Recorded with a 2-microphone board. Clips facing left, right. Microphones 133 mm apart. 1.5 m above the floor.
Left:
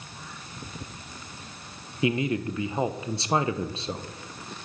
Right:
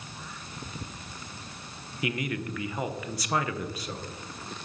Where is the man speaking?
25° left (ahead or behind), 0.7 m.